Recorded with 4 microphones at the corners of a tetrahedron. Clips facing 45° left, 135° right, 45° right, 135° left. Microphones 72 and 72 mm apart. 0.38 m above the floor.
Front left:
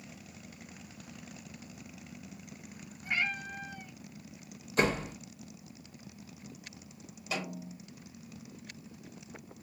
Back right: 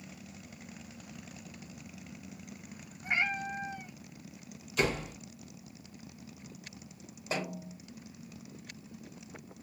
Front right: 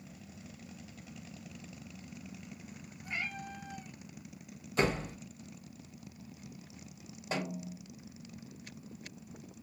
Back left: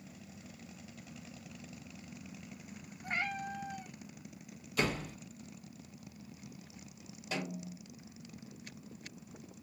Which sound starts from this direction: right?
A snare drum, at 7.3 s.